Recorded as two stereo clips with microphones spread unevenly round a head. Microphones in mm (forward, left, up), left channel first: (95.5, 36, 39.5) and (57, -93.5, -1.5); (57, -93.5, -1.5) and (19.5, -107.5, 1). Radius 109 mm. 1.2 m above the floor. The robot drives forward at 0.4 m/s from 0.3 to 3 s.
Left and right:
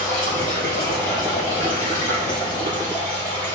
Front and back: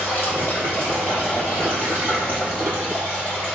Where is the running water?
75° left, 1.6 m; by 3.6 s 115° left, 1.7 m.